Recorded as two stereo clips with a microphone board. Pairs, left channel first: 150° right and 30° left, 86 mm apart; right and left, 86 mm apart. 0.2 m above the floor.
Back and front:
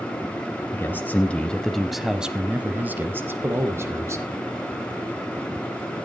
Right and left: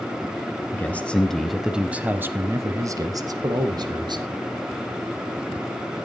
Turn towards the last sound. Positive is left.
turn(degrees=80)